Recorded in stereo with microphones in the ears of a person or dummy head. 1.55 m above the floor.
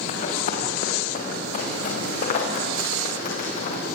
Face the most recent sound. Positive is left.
turn(degrees=40)  # may be behind; listen again after turning